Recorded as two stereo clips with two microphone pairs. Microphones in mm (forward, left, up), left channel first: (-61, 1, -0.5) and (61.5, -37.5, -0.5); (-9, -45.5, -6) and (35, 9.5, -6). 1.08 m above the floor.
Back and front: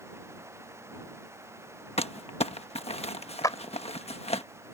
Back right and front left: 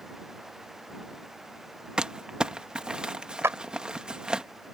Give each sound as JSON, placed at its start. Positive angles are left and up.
{"t": 2.0, "sound": "crumpling", "azimuth_deg": 130}
{"t": 3.4, "sound": "a clap", "azimuth_deg": 100}